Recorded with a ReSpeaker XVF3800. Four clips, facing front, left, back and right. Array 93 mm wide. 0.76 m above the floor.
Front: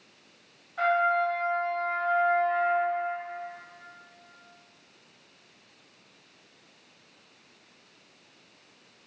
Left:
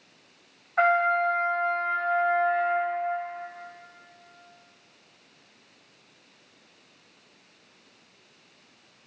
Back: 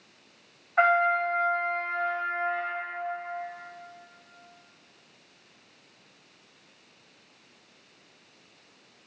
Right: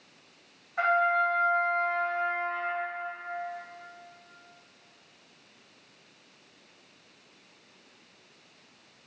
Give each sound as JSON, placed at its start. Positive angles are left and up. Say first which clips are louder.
{"t": 0.8, "sound": "a trumpet", "louder": "left 3 dB, back 2 dB", "azimuth_deg": 145, "distance_m": 3.0}